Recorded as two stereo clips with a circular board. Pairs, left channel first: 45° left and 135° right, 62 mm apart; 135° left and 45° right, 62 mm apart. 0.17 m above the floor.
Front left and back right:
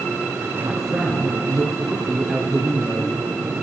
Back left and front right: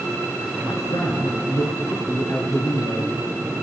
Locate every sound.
0.6 s a man speaking: 140° left, 3 m